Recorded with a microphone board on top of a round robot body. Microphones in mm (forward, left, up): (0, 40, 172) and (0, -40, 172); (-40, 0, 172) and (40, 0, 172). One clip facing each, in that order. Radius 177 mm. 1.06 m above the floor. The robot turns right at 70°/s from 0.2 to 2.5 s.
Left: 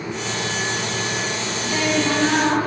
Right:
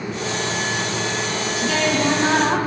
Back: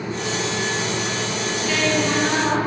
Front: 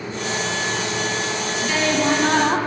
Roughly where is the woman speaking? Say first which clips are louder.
Right 1 dB, even; right.